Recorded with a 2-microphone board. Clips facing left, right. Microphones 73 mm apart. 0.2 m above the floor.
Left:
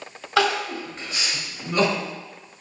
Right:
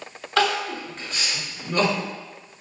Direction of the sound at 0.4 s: 10° left (ahead or behind).